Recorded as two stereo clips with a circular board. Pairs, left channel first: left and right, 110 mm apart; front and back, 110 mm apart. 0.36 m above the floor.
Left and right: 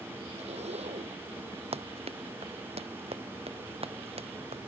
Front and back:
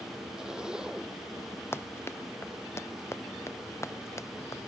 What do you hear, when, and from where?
0.4 s a zipper: 95° right
1.7 s running footsteps: 70° right; by 4.7 s 65° right